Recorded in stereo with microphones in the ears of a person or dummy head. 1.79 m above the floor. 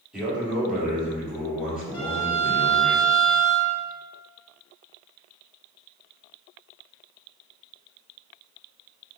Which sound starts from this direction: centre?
A man speaking, at 0.1 s.